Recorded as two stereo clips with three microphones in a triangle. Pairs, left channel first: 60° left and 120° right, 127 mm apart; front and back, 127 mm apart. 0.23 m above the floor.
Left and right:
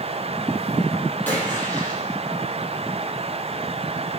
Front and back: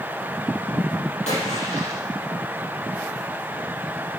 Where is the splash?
15° right, 5.5 m.